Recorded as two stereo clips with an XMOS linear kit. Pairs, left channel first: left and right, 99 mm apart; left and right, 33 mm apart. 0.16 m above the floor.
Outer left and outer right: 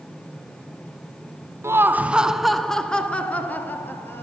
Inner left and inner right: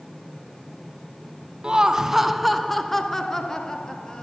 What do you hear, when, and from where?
1.6 s laughter: 30° right (ahead or behind), 1.2 m; by 4.2 s 20° left (ahead or behind), 3 m